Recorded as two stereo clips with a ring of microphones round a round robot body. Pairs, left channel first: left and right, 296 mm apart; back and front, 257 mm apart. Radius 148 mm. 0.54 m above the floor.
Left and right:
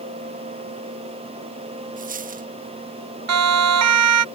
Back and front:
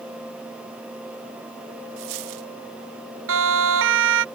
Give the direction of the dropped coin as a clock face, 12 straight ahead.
1 o'clock.